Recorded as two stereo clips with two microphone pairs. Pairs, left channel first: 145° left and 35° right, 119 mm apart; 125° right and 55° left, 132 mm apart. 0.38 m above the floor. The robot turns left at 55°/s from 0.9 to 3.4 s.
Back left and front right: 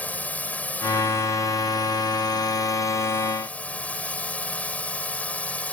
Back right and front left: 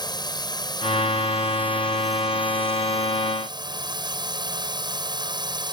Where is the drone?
150° right; by 5.8 s 75° left.